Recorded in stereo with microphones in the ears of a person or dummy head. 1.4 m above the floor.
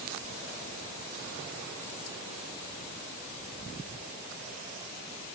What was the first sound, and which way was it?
Only background noise.